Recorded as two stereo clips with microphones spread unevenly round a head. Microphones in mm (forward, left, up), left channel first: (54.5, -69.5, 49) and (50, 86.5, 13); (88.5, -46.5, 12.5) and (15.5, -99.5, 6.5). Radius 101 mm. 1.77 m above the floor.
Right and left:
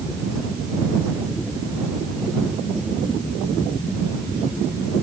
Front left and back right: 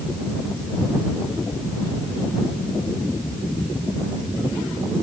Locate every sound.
Only background noise.